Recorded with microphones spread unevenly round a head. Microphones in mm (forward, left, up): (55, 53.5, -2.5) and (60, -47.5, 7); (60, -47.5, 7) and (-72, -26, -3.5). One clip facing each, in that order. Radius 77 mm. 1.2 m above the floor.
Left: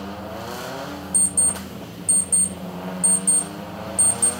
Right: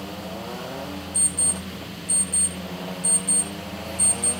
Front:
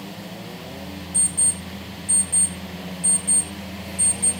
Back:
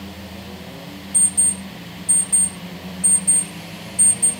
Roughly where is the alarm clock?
Left.